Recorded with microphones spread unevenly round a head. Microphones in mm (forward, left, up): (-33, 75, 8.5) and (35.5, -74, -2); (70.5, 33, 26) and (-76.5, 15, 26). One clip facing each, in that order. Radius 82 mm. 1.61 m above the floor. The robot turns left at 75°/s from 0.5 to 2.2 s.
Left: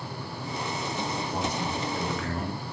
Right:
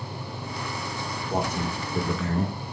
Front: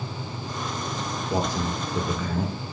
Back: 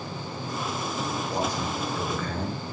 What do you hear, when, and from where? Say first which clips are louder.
1.3 s a man speaking: right 2 dB, front 5 dB; 5° right, 2 m; by 2.6 s 75° right, 2 m